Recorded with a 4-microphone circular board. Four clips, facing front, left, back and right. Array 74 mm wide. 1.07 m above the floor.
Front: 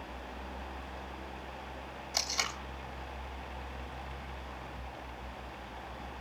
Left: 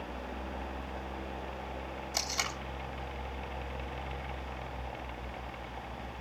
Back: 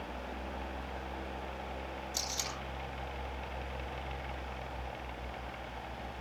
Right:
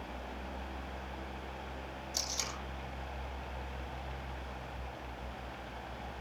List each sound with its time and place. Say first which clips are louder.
2.1 s tape being pulled: left 7 dB, front 3 dB; 55° left, 3.5 m